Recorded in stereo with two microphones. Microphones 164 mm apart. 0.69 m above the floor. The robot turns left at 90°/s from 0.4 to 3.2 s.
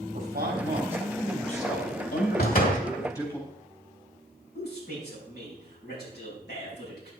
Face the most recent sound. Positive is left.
turn(degrees=80)